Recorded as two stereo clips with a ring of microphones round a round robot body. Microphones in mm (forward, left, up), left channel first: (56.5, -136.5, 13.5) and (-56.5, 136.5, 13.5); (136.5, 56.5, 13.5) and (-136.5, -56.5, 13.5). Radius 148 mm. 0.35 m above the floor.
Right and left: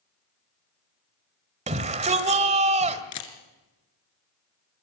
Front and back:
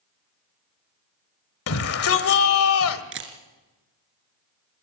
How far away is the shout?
About 1.4 m.